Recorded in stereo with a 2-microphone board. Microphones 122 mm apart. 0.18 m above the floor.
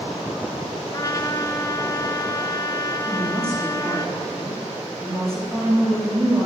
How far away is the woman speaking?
About 5.5 m.